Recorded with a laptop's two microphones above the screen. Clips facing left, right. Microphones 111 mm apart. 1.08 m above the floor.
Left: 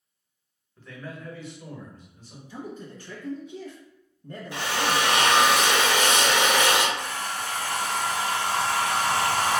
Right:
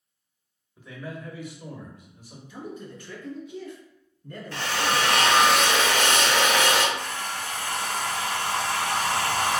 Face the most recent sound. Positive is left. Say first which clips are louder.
# left 1 dB
turn(degrees=35)  # may be behind; listen again after turning